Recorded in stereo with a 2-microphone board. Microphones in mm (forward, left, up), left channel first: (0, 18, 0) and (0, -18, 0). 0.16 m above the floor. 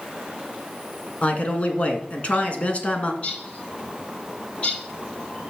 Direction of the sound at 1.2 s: 40° left (ahead or behind).